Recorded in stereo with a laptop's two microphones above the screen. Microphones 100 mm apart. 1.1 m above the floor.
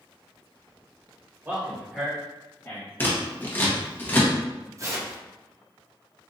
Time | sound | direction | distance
1.4 | a man speaking | 20° right (ahead or behind) | 1.4 m
3.0 | scissors | 20° left (ahead or behind) | 1.0 m
4.8 | tearing paper | 30° right (ahead or behind) | 0.7 m